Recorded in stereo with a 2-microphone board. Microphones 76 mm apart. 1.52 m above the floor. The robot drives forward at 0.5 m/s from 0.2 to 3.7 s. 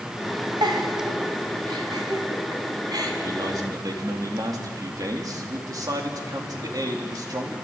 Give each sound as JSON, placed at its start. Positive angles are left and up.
{"t": 0.6, "sound": "a giggle", "side_deg": -70, "distance_m": 3.5}
{"t": 3.2, "sound": "a man speaking", "side_deg": -55, "distance_m": 3.5}